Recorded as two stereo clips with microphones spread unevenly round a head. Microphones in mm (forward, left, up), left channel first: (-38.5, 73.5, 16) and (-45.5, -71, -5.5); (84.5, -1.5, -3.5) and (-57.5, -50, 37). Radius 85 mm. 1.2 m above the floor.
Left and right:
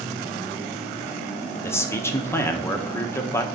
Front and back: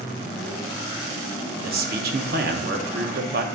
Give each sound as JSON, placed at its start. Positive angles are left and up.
{"t": 1.6, "sound": "a man speaking", "azimuth_deg": 160, "distance_m": 1.0}